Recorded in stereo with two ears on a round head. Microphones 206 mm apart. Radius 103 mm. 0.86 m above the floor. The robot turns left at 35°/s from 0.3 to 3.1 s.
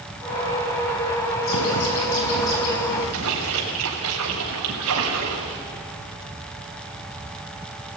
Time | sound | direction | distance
1.4 | a bird | 120° left | 5 m
3.1 | a splash | 75° right (ahead or behind) | 5.5 m